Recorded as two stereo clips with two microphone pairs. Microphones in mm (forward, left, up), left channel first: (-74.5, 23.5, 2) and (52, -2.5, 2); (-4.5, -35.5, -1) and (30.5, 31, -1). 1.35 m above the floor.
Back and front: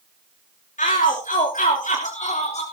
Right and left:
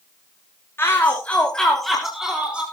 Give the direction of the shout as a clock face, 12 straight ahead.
6 o'clock.